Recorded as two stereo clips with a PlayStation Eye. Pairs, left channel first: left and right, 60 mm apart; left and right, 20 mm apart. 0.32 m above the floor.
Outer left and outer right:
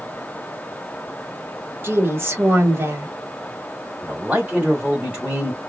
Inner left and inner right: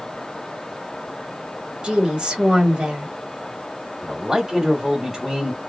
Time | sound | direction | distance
1.8 | a woman speaking | 40° right (ahead or behind) | 1.2 m
4.0 | a man speaking | 20° right (ahead or behind) | 1.2 m